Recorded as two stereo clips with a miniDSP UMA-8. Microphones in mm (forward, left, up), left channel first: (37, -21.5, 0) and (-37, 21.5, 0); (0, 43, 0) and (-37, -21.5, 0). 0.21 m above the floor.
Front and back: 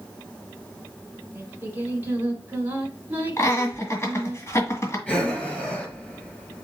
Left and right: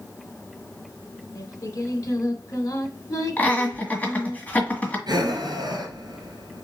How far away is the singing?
About 1.5 m.